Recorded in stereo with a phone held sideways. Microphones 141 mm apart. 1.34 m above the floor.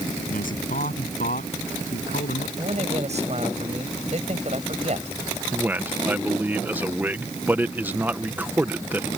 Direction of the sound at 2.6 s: 55° right (ahead or behind).